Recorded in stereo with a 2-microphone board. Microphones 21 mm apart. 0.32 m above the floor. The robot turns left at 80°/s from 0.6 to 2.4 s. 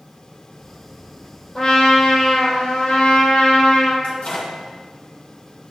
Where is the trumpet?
150° left, 2.5 m; by 3.9 s 85° left, 2.5 m.